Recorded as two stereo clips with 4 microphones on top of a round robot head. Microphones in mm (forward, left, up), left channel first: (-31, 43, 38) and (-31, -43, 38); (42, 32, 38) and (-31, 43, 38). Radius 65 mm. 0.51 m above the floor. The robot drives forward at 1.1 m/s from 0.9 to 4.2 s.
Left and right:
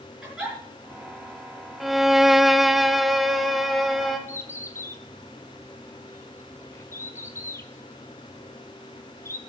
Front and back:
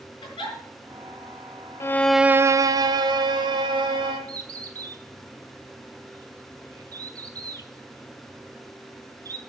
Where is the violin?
5° right, 0.6 m; by 4.2 s straight behind, 2.5 m.